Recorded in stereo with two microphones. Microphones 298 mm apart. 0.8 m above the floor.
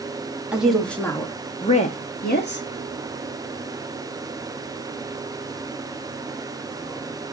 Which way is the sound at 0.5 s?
5° right (ahead or behind).